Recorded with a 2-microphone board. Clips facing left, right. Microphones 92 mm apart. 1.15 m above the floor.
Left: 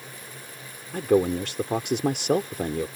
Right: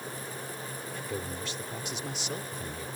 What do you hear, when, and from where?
0.9 s a man speaking: 65° left (ahead or behind)